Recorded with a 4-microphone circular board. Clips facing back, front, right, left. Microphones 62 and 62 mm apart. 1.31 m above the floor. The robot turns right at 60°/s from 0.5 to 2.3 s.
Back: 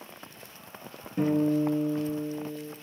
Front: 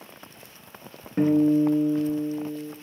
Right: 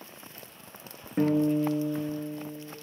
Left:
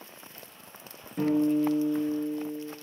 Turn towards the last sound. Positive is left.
turn(degrees=30)